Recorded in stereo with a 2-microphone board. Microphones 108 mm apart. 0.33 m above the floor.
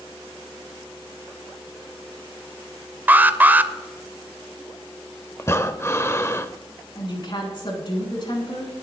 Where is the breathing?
25° left (ahead or behind), 0.6 m.